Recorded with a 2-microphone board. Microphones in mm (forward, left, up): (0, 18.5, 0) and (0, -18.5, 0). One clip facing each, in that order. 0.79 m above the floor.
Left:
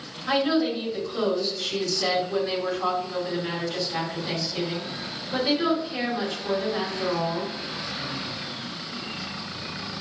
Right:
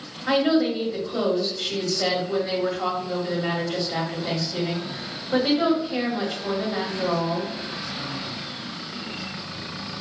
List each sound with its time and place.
0.3 s a woman speaking: 65° right (ahead or behind), 2.0 m